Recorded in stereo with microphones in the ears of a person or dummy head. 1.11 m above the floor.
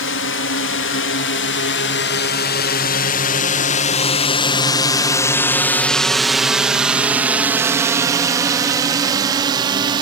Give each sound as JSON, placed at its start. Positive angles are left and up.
{"t": 0.0, "sound": "a drone", "side_deg": 55}